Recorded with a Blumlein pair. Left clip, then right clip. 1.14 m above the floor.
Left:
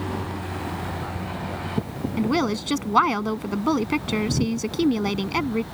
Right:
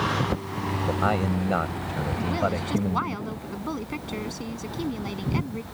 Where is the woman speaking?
65° left.